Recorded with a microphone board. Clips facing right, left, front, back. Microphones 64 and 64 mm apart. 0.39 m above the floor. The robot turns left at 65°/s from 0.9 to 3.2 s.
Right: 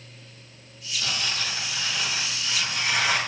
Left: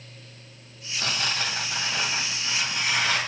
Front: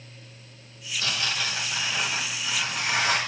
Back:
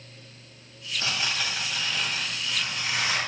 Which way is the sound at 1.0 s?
125° left.